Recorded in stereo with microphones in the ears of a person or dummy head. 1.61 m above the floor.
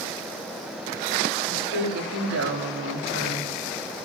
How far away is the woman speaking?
About 4 m.